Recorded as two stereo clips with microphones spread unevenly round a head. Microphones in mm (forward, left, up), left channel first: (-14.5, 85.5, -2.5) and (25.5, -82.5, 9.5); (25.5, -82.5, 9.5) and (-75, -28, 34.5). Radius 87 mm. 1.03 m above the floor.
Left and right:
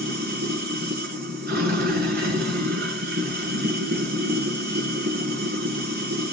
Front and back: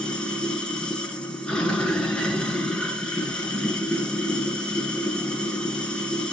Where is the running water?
110° right, 9 m.